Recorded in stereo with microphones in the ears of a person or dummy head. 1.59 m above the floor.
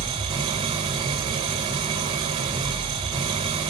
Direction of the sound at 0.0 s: 25° right (ahead or behind).